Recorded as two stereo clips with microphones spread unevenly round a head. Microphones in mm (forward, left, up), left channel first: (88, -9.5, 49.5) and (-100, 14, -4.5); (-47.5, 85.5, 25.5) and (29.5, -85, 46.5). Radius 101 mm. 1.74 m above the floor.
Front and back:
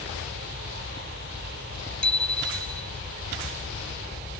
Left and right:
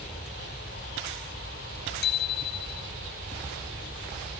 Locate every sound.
2.0 s a bicycle bell: 75° left